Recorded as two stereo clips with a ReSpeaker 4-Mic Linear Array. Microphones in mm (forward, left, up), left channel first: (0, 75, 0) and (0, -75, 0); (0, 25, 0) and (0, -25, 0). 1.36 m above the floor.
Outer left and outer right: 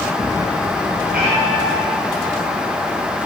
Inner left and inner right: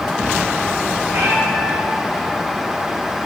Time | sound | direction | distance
1.1 | a cat meowing | 80° right | 4 m